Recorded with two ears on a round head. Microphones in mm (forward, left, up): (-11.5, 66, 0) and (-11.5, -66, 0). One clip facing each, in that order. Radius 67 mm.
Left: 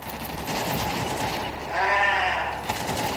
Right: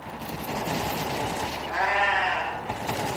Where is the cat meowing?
85° right, 7 m.